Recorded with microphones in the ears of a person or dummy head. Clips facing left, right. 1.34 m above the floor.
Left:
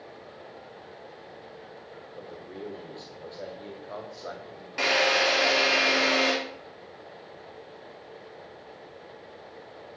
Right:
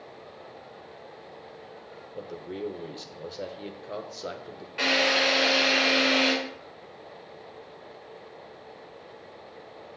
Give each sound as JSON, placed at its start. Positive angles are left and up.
{"t": 2.1, "sound": "a man speaking", "side_deg": -35, "distance_m": 0.8}
{"t": 4.8, "sound": "a drill", "side_deg": 50, "distance_m": 2.0}